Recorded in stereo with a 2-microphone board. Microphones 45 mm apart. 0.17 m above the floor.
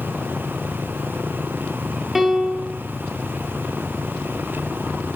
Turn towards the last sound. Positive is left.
turn(degrees=-5)  # may be behind; listen again after turning